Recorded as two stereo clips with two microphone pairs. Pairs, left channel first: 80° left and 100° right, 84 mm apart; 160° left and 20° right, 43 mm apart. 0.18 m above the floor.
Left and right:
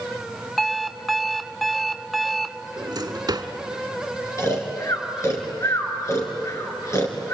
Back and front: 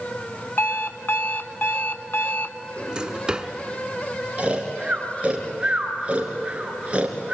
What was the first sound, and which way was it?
An alarm clock, 175° left.